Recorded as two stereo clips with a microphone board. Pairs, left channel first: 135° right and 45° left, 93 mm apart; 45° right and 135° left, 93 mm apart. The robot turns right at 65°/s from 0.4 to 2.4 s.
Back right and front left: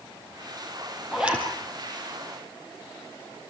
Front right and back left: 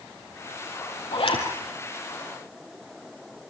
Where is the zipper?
45° right, 4 m; by 1.4 s 20° right, 4 m.